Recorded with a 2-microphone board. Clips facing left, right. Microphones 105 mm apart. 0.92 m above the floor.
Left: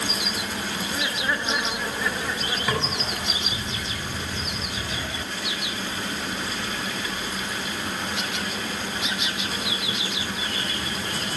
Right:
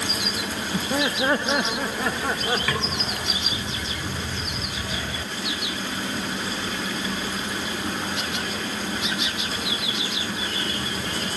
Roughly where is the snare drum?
Centre.